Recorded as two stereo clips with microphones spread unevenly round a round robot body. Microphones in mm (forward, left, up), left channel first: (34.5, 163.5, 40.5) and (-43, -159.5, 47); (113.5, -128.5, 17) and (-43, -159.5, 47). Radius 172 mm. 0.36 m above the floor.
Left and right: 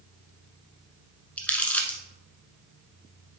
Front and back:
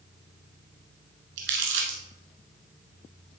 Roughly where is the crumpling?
Behind.